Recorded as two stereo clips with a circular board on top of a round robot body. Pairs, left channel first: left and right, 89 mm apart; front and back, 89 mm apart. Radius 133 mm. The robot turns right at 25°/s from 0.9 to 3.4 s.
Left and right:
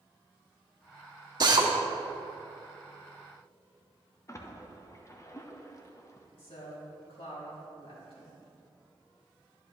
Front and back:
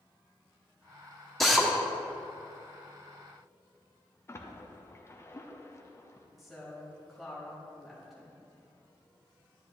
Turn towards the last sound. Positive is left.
turn(degrees=90)